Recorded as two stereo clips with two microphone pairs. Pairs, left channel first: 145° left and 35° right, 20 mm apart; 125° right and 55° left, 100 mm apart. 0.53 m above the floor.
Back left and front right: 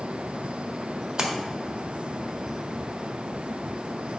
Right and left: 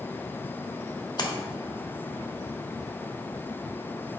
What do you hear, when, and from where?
1.2 s a splash: 90° right, 1.3 m